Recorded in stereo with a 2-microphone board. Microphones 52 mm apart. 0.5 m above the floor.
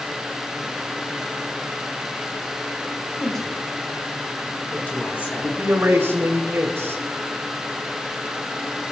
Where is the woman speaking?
5° left (ahead or behind), 4 m; by 5.6 s 50° left (ahead or behind), 3 m.